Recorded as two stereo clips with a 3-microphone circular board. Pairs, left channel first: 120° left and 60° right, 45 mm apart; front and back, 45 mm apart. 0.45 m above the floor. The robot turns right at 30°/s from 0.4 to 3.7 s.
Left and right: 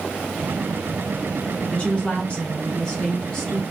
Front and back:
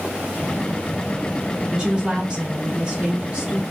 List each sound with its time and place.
1.7 s a woman speaking: 130° left, 1.4 m; by 3.7 s 170° right, 1.4 m